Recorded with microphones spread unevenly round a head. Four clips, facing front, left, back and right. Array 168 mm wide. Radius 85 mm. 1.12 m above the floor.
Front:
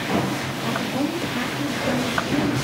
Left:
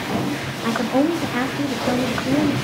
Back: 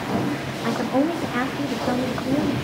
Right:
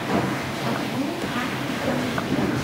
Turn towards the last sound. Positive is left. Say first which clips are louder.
# left 9 dB, back 4 dB
turn(degrees=110)